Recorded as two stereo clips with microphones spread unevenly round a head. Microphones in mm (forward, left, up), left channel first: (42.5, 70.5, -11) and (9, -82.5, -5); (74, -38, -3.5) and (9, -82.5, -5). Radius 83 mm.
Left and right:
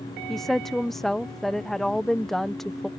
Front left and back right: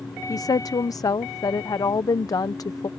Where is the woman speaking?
10° right.